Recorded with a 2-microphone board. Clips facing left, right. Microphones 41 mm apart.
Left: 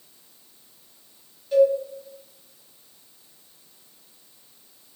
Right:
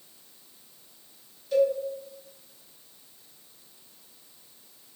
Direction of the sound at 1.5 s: 20° left (ahead or behind).